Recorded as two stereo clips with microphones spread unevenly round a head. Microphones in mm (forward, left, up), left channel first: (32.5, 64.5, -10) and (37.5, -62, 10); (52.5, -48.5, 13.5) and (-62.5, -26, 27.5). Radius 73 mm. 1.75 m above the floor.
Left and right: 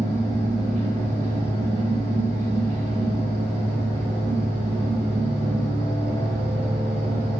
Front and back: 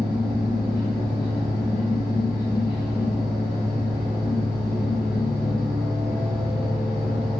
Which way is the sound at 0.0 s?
80° right.